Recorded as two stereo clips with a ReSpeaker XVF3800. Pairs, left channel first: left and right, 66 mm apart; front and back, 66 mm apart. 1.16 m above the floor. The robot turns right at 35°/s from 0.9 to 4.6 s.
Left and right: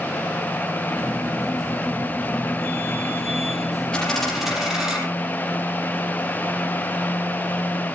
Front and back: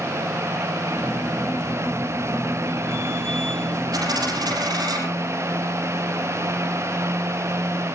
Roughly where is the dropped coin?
Behind.